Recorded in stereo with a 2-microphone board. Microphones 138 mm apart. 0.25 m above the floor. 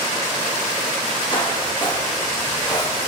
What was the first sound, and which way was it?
Footsteps, 35° left (ahead or behind).